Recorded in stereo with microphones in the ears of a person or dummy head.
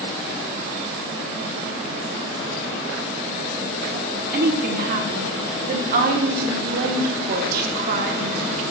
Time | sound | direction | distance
3.9 | a woman speaking | 55° right (ahead or behind) | 1.0 m